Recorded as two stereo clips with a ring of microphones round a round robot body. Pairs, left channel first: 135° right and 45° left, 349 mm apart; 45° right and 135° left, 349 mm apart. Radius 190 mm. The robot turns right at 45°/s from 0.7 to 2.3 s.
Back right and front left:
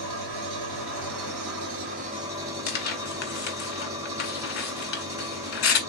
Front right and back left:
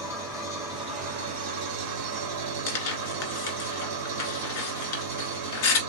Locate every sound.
0.0 s an engine running: 55° left, 1.5 m; by 5.9 s 125° left, 1.5 m
2.7 s tearing paper: 85° right, 1.5 m